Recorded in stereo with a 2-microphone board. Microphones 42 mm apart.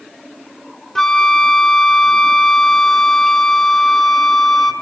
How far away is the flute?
About 0.8 m.